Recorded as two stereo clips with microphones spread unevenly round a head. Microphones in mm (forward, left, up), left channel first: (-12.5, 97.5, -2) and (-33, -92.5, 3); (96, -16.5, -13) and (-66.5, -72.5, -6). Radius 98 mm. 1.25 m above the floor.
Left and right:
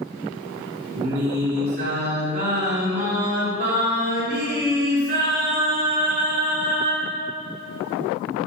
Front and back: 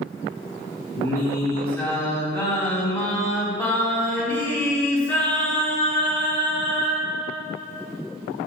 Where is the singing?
60° right, 3 m.